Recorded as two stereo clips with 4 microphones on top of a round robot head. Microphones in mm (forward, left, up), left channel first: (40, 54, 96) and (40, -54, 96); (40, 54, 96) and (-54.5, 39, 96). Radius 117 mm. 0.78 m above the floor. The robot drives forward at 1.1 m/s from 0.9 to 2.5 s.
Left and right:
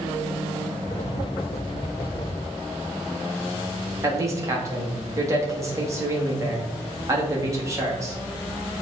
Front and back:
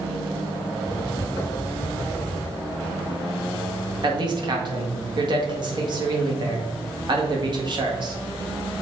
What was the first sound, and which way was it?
A man speaking, 145° right.